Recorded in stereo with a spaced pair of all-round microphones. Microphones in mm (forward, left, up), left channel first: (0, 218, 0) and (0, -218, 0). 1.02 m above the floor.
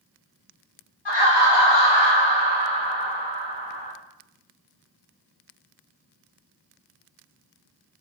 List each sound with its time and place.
1.1 s laughter: 60° left (ahead or behind), 0.9 m; by 3.9 s 25° left (ahead or behind), 1.3 m